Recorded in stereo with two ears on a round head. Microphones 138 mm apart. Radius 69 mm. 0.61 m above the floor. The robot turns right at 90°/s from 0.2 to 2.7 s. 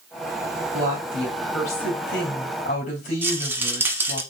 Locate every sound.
0.7 s a woman speaking: 55° right, 2.5 m; by 4.2 s 120° left, 2.5 m
3.2 s a rattle: 15° right (ahead or behind), 1.0 m